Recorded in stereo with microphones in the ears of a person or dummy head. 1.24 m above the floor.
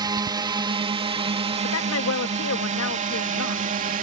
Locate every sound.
0.0 s a drone: 15° right (ahead or behind); by 4.0 s 35° right (ahead or behind)
1.6 s a woman speaking: 80° left